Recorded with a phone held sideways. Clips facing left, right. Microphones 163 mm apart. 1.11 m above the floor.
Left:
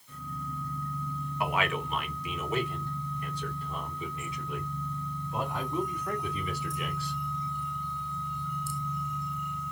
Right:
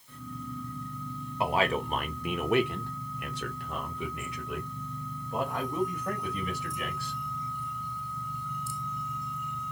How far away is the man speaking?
About 1.0 m.